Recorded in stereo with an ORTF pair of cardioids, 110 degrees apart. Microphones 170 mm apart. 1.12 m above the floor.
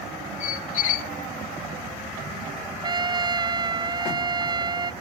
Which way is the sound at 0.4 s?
50° left.